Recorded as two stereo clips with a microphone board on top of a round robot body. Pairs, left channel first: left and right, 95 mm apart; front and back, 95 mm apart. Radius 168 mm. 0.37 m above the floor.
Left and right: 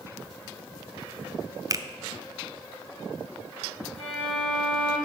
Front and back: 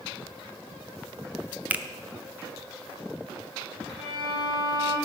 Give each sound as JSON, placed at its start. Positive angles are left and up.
{"t": 1.7, "sound": "a finger snap", "azimuth_deg": -115, "distance_m": 0.7}
{"t": 4.0, "sound": "a violin", "azimuth_deg": -110, "distance_m": 5.0}